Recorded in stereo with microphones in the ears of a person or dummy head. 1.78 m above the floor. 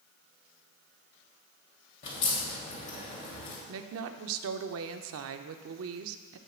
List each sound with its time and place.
2.0 s a crack: 40° left (ahead or behind), 1.9 m
3.7 s a woman speaking: 75° right (ahead or behind), 0.7 m